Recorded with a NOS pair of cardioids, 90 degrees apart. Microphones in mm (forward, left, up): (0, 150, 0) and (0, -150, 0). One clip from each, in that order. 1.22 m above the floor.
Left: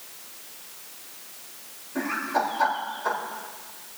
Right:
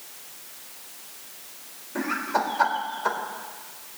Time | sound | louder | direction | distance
1.9 | laughter | even | 35° right | 4 m